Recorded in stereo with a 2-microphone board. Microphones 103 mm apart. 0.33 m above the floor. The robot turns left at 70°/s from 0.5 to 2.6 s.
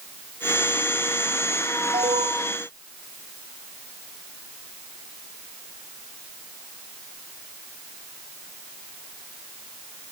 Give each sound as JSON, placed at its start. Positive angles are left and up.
{"t": 1.9, "sound": "an alarm", "azimuth_deg": -65}